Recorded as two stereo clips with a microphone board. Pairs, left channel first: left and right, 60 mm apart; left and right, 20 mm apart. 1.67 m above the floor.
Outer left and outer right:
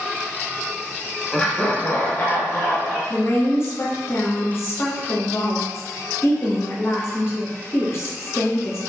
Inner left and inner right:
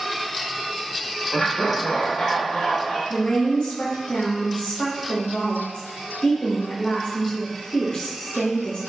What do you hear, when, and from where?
1.3 s laughter: 15° left (ahead or behind), 0.6 m; by 3.0 s 45° left (ahead or behind), 1.6 m
3.1 s a woman speaking: 45° left (ahead or behind), 0.9 m